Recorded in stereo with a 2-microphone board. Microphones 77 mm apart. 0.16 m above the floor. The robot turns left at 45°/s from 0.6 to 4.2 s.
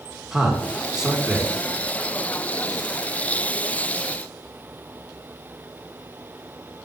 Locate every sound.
0.3 s a man speaking: 5° right (ahead or behind), 1.7 m; by 1.5 s 15° right (ahead or behind), 1.7 m